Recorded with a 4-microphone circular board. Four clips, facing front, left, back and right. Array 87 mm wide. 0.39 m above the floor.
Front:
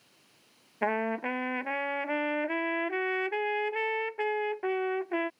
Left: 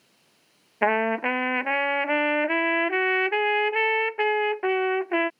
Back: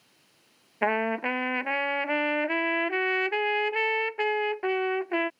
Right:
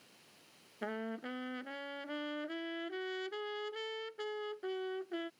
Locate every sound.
0.8 s a trumpet: 100° left